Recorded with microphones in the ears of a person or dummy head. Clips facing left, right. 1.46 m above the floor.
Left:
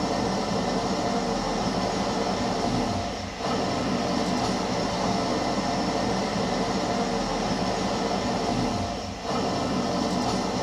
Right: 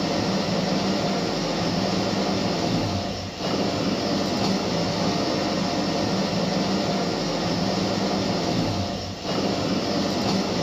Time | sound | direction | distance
0.0 | an engine running | 35° right (ahead or behind) | 0.8 m